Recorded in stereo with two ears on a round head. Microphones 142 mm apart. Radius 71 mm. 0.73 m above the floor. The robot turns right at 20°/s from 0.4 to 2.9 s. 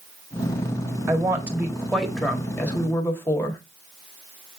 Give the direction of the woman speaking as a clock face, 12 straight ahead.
1 o'clock.